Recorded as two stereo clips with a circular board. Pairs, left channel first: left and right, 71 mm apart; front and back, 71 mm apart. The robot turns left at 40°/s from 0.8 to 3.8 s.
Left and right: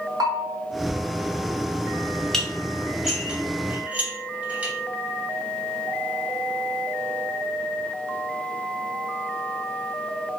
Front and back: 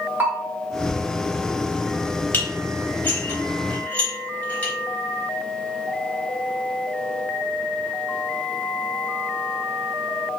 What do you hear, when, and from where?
0.2 s a bell: 115° right, 0.6 m
2.3 s dishes clattering: 20° left, 0.8 m; by 4.7 s 40° right, 0.8 m